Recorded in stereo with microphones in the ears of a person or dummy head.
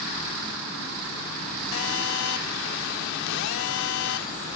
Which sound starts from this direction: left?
A phone buzzing, at 1.7 s.